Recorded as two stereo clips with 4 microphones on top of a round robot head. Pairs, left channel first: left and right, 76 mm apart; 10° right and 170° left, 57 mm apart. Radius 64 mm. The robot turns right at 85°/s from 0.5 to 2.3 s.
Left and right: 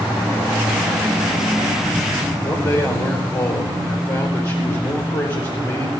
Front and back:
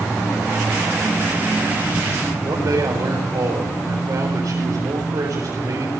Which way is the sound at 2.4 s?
140° left.